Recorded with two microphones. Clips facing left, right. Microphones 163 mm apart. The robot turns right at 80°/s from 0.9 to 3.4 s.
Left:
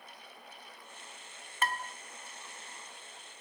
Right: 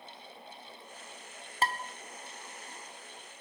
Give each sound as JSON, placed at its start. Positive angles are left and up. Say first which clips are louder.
{"t": 1.6, "sound": "dishes clattering", "louder": "right 2 dB", "side_deg": -30, "distance_m": 0.8}